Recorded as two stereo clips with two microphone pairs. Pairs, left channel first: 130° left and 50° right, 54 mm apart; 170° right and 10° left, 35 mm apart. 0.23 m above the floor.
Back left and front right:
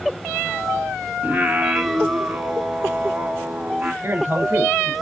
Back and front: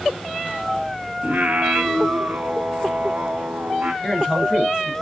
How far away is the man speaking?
About 4.5 m.